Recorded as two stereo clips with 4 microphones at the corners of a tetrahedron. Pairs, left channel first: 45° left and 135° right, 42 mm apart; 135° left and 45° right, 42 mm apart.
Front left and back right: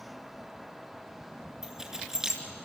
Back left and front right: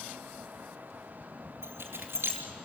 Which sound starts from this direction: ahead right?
Keys jangling, at 1.6 s.